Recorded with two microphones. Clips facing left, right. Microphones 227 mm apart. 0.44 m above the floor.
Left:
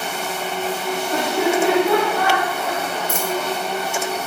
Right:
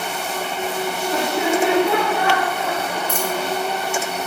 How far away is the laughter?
About 1.2 m.